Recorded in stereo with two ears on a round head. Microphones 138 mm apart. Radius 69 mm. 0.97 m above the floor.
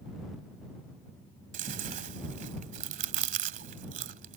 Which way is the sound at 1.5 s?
50° right (ahead or behind).